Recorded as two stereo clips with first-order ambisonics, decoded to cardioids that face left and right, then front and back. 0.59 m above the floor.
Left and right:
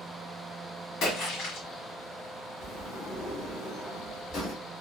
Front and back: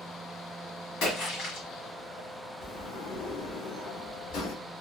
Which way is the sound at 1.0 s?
40° left.